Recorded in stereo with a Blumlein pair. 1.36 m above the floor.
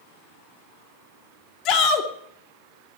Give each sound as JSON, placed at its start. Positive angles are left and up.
{"t": 1.6, "sound": "a shout", "azimuth_deg": 35, "distance_m": 2.5}